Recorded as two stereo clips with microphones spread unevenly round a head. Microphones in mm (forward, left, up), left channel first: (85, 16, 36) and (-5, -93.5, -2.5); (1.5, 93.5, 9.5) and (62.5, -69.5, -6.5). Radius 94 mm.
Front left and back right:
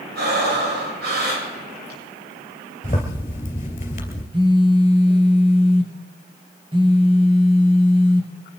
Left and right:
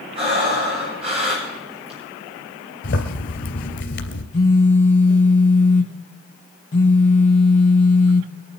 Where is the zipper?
100° left, 3 m.